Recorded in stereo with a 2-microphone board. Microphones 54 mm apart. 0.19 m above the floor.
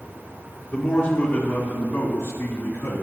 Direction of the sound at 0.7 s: 35° left (ahead or behind).